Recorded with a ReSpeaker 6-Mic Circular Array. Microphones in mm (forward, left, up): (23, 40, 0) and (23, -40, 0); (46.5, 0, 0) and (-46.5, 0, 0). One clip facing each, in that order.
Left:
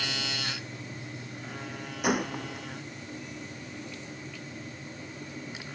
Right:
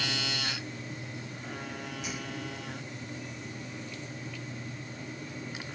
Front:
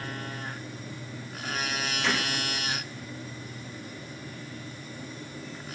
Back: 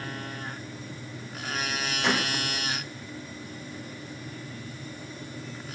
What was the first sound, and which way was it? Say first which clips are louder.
A gunshot: left 14 dB, back 3 dB; 110° left.